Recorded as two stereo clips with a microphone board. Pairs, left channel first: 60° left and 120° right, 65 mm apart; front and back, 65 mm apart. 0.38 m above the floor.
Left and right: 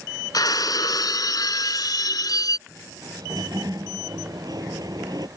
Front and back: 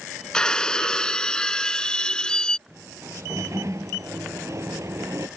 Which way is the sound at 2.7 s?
140° right.